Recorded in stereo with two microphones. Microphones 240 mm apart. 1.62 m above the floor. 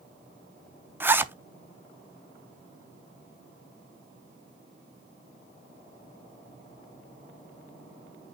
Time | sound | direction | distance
1.0 | a zipper | 10° right (ahead or behind) | 0.5 m